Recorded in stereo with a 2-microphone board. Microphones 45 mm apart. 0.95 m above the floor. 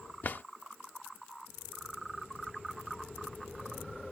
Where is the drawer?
45° left (ahead or behind).